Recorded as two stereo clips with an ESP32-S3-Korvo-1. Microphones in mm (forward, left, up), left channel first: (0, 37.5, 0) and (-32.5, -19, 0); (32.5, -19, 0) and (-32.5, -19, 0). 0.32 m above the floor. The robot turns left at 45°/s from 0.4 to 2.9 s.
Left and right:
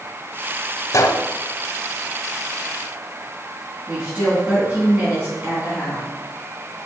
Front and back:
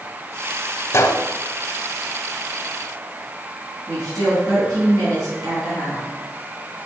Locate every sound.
0.9 s a gunshot: 40° left, 0.6 m; by 1.2 s 25° left, 0.6 m
3.9 s a woman speaking: 175° left, 3.5 m